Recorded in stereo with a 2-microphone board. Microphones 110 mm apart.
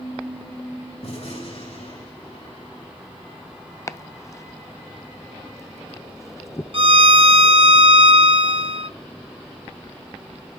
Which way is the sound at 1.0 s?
70° left (ahead or behind).